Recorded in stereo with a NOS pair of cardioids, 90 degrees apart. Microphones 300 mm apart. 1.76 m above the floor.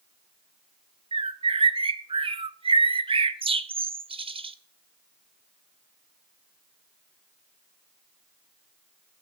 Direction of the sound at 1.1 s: 20° right.